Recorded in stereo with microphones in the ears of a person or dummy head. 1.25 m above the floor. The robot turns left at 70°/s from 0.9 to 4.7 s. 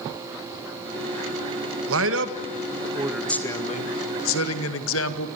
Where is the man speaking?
85° right, 1.9 m; by 5.3 s 80° left, 1.9 m.